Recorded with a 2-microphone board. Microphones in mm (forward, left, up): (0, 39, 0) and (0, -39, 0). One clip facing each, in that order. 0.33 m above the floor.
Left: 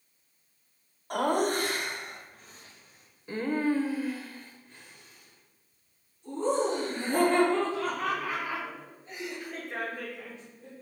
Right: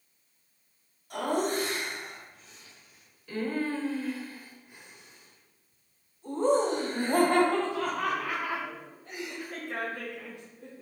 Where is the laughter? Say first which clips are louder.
Left 2 dB; 60° left (ahead or behind), 2.0 m; by 10.8 s 70° right (ahead or behind), 4 m.